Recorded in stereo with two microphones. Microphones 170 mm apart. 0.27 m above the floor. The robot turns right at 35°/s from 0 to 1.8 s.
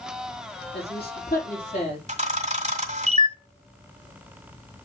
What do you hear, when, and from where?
0.7 s a woman speaking: 100° left, 5 m; by 2.0 s 135° left, 5 m
2.1 s a camera shutter: 40° right (ahead or behind), 1.7 m